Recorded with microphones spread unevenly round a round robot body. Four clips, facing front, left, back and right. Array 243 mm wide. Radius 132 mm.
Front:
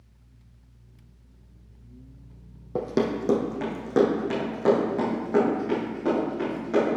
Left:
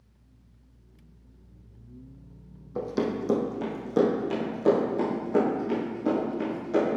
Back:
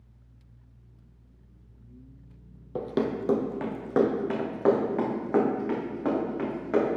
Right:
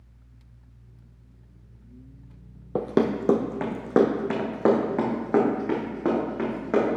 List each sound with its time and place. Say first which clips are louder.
2.8 s running footsteps: right 5 dB, front 3 dB; 75° right, 0.7 m; by 7.0 s 100° right, 3 m